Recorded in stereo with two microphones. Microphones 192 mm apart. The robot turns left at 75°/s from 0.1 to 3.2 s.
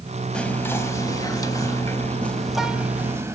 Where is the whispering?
5° left (ahead or behind), 1.0 m; by 3.4 s 15° right (ahead or behind), 1.0 m.